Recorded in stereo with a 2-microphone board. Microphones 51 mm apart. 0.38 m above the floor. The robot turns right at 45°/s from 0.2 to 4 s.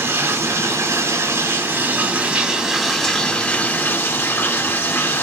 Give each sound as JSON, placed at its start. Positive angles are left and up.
{"t": 0.0, "sound": "running water", "azimuth_deg": -120, "distance_m": 0.8}